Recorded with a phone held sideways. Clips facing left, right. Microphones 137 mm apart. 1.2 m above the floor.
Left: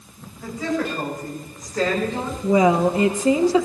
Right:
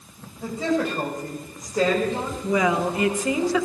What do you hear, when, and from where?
0.4 s a woman speaking: 30° right (ahead or behind), 7 m; by 2.3 s 10° right (ahead or behind), 5.5 m
2.4 s a woman speaking: 30° left (ahead or behind), 1.3 m